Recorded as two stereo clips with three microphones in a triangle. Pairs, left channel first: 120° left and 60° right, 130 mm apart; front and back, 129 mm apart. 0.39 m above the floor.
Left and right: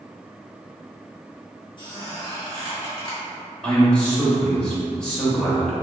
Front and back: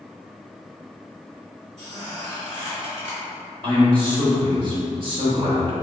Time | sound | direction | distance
1.8 | a squeak | 170° left | 1.7 m
3.6 | a man speaking | 160° right | 1.1 m